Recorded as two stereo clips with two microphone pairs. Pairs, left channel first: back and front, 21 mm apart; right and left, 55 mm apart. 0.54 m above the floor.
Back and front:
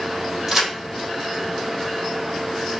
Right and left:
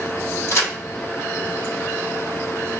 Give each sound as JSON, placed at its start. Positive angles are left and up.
{"t": 0.5, "sound": "a crack", "azimuth_deg": -70, "distance_m": 1.4}